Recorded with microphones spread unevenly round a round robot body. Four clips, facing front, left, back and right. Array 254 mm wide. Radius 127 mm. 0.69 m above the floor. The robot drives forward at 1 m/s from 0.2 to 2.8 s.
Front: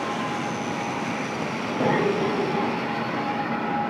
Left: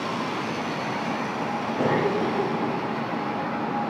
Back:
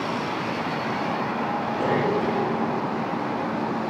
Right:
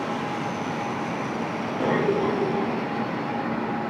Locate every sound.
1.8 s a cough: 75° left, 5 m; by 2.7 s 85° left, 4.5 m